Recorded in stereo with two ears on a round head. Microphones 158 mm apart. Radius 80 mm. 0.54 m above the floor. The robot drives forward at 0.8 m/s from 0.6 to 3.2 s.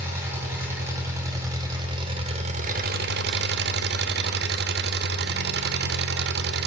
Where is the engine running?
15° right (ahead or behind), 2 m; by 6.7 s 65° right (ahead or behind), 0.6 m.